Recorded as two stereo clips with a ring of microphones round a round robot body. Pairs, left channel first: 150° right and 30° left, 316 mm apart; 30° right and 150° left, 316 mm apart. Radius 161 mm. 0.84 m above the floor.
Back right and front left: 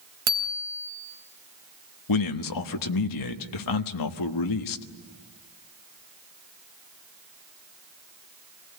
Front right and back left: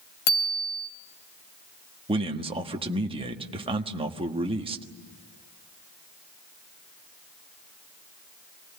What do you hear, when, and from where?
0.3 s a bicycle bell: 20° right, 3 m
2.1 s a man speaking: 135° right, 1.4 m